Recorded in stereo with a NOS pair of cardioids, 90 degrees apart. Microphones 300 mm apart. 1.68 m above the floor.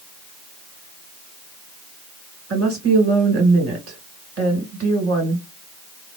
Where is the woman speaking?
50° right, 2.5 m.